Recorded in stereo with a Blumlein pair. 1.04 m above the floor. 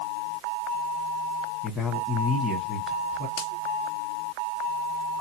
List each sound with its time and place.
1.6 s a man speaking: 15° left, 1.2 m
3.4 s a finger snap: 50° left, 1.4 m